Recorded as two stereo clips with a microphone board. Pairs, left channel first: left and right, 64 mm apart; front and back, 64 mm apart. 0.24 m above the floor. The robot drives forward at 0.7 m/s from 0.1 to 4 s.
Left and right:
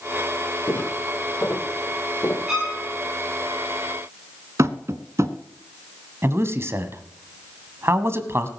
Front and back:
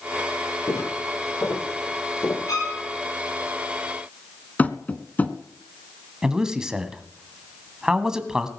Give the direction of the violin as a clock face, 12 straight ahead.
12 o'clock.